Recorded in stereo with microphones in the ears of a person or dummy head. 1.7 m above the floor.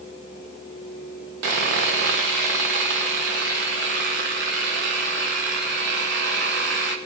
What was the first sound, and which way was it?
Sawing, 50° right (ahead or behind).